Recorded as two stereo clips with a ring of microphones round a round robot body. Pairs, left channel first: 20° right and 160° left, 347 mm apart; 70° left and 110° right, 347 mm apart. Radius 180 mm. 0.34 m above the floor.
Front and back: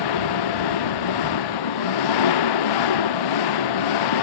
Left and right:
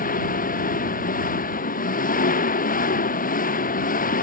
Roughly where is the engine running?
Ahead.